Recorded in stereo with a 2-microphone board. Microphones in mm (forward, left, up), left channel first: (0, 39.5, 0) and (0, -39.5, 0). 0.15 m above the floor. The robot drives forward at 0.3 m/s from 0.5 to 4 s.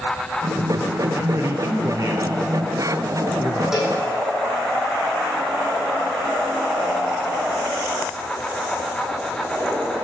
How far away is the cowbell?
About 6 m.